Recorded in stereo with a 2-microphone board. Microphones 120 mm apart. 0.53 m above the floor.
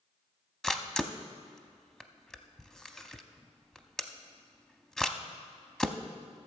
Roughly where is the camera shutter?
Centre.